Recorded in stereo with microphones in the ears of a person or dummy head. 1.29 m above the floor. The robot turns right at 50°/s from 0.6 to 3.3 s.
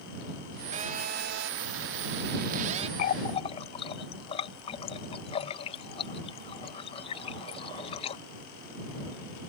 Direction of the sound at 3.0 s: 45° left (ahead or behind).